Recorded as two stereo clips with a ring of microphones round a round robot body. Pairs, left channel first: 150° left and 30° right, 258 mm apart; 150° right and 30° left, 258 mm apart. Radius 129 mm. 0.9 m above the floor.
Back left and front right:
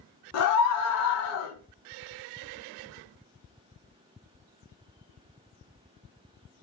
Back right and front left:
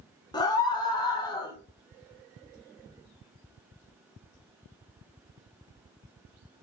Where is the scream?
135° left, 0.5 m.